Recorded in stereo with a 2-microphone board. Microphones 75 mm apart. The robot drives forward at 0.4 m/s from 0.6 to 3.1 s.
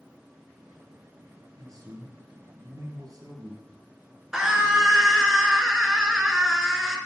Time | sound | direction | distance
1.6 | a man speaking | 50° right (ahead or behind) | 2.5 m
4.3 | a scream | 10° right (ahead or behind) | 1.6 m